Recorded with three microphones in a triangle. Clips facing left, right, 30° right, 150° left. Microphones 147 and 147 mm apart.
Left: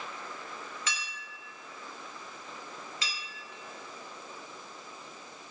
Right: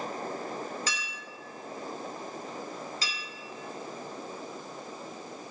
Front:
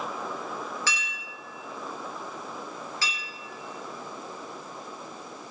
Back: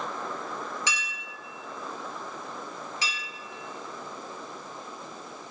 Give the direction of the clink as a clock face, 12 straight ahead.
5 o'clock.